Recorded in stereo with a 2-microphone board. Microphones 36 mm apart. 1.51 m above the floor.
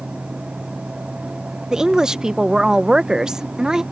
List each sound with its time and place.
1.7 s a woman speaking: 20° right (ahead or behind)